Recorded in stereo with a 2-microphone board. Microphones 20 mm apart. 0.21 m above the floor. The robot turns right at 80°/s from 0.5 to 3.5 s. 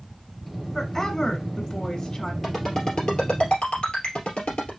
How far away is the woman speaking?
About 1.3 m.